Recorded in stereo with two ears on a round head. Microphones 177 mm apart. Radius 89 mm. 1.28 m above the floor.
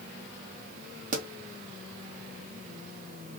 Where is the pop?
40° right (ahead or behind), 0.8 m.